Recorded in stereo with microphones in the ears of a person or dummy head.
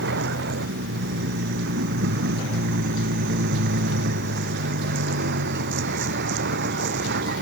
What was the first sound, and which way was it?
A vehicle, 55° right (ahead or behind).